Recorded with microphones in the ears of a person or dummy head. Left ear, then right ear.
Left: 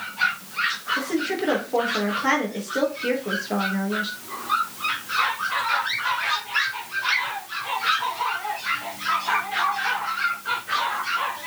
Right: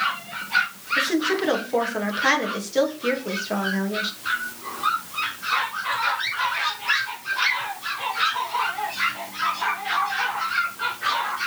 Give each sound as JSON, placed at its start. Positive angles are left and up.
{"t": 1.0, "sound": "a woman speaking", "side_deg": -10, "distance_m": 3.0}